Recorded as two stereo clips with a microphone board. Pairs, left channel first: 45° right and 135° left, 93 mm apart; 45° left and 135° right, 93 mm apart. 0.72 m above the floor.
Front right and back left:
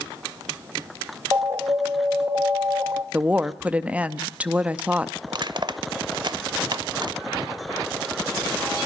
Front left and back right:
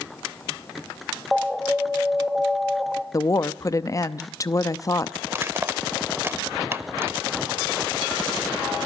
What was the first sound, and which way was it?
An alarm, 130° left.